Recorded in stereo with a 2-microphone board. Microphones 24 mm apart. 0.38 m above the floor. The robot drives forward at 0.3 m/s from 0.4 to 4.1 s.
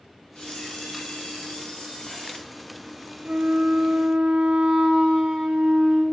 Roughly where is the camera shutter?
Left.